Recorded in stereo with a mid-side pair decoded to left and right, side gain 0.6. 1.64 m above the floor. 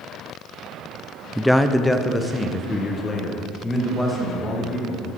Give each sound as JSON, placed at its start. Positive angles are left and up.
{"t": 1.4, "sound": "a man speaking", "azimuth_deg": 0, "distance_m": 0.6}